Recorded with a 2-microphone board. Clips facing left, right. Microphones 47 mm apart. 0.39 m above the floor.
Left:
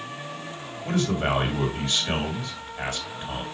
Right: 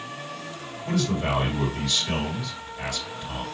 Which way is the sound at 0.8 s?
40° left (ahead or behind).